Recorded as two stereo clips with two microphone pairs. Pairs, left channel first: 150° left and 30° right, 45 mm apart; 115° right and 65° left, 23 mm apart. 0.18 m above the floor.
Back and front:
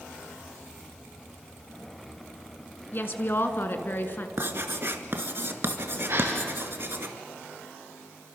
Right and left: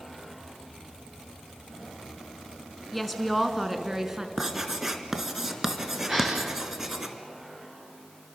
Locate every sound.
2.9 s a woman speaking: 160° left, 1.9 m; by 4.3 s 125° left, 2 m
4.4 s writing: 15° right, 1.6 m
6.1 s a gasp: 10° right, 7.5 m